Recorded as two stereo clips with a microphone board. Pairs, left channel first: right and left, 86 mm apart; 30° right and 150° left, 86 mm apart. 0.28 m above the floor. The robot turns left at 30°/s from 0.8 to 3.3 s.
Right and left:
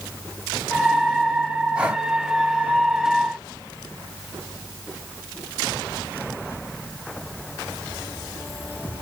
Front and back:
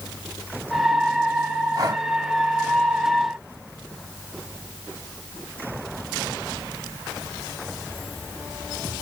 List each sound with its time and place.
1.8 s breathing: 160° left, 1.2 m; by 2.0 s 155° left, 1.2 m